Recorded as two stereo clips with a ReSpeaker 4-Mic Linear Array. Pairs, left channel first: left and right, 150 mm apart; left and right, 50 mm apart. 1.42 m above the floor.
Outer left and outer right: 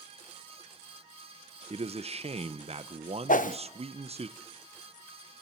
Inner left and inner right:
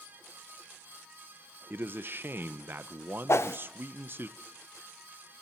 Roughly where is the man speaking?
Right.